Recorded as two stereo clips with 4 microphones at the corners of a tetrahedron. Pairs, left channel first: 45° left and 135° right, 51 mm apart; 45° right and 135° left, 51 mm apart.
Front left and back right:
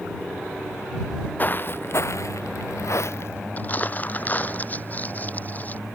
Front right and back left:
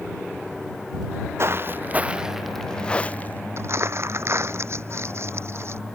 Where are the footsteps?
100° left; by 3.4 s 10° left.